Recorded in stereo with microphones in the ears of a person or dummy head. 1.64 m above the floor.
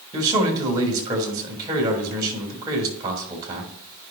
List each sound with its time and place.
0.1 s a man speaking: 20° right (ahead or behind), 3 m